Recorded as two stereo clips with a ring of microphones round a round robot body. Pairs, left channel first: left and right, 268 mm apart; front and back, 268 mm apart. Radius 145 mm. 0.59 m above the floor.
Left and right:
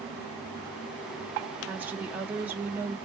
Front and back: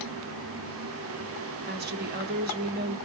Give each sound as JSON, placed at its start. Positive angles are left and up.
{"t": 1.7, "sound": "a woman speaking", "azimuth_deg": -170, "distance_m": 0.9}